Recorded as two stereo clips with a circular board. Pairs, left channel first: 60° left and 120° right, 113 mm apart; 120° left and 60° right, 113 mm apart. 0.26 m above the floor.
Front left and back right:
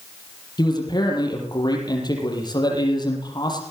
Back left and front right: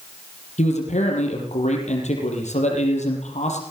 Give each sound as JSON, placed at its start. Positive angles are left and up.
{"t": 0.6, "sound": "a man speaking", "azimuth_deg": 115, "distance_m": 6.5}